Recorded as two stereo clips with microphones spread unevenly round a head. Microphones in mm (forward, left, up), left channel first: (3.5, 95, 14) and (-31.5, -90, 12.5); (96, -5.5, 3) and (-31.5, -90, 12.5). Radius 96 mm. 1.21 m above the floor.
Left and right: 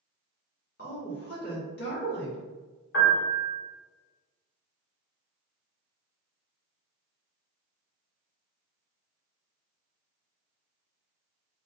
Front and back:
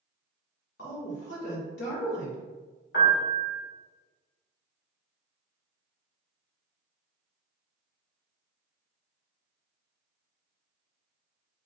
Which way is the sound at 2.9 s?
45° left.